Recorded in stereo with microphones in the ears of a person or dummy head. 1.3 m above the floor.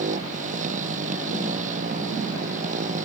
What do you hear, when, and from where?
0.0 s a motorcycle: 40° right (ahead or behind)